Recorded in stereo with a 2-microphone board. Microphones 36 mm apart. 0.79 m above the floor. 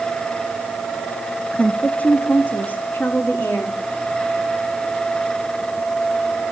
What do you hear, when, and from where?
1.5 s a woman speaking: 35° left (ahead or behind), 0.7 m; by 3.8 s 70° left (ahead or behind), 1.7 m